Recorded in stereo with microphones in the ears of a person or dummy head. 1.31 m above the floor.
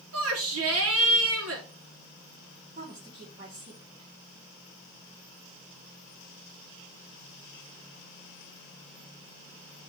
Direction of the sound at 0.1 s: 80° right.